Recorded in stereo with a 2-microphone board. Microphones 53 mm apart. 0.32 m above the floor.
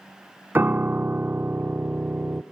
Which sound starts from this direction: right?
A piano, at 0.6 s.